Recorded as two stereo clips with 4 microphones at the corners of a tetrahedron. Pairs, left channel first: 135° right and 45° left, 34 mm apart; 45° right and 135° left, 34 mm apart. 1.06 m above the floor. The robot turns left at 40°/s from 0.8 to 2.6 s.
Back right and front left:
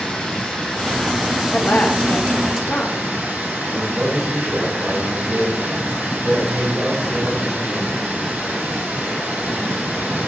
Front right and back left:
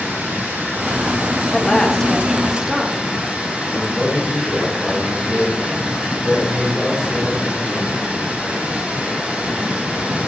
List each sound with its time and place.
0.0 s running water: 150° left, 5.5 m; by 10.3 s 80° left, 5.5 m
1.5 s a woman speaking: 105° right, 1.4 m; by 3.0 s 145° right, 1.4 m
3.7 s a man speaking: 55° left, 6 m